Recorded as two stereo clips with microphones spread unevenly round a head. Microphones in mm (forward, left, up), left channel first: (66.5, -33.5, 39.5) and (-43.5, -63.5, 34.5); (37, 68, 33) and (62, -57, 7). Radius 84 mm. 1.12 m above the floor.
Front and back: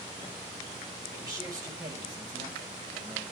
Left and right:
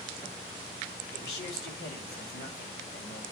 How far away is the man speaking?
About 2.5 m.